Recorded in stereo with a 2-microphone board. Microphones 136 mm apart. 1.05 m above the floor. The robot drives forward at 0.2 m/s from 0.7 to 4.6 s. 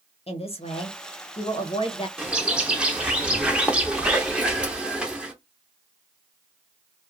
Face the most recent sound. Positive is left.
turn(degrees=-5)  # may be behind; listen again after turning